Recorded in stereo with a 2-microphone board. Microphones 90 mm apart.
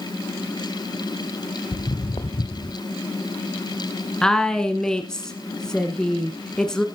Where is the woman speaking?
5° left (ahead or behind), 1.4 m.